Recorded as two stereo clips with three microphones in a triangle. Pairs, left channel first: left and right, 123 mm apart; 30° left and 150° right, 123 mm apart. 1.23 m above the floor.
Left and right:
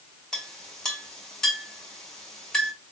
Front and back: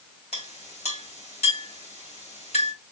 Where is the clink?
5° left, 2.5 m.